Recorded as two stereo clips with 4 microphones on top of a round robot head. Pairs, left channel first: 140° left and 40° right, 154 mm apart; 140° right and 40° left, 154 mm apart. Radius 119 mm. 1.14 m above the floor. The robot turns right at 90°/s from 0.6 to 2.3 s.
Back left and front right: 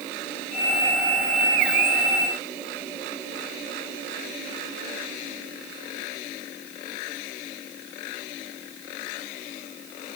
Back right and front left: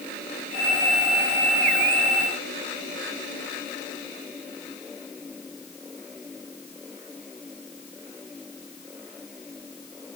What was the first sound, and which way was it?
Only background noise.